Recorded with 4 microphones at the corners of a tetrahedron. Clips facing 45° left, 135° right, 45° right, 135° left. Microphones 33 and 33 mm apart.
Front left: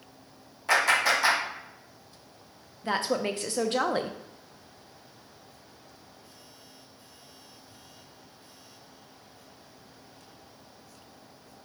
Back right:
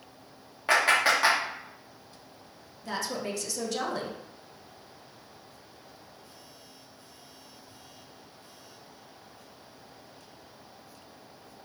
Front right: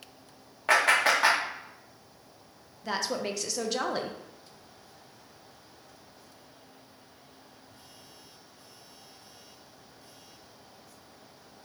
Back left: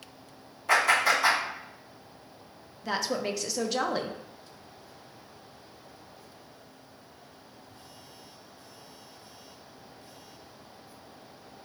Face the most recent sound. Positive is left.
turn(degrees=50)